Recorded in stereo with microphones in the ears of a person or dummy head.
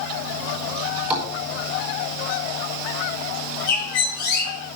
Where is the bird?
60° left (ahead or behind), 4 m.